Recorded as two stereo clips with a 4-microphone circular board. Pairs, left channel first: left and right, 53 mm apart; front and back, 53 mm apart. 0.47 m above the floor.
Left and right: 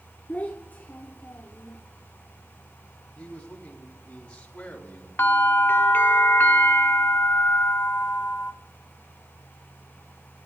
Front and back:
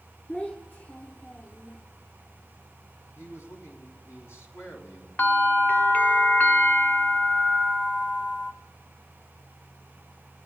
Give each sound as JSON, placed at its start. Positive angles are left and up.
{"t": 0.3, "sound": "a child speaking", "azimuth_deg": 50, "distance_m": 1.0}
{"t": 3.1, "sound": "a man speaking", "azimuth_deg": 20, "distance_m": 4.0}
{"t": 5.2, "sound": "a bell", "azimuth_deg": 50, "distance_m": 1.0}